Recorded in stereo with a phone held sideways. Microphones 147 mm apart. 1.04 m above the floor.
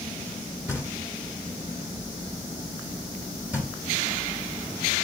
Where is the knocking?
10° right (ahead or behind), 2.5 m.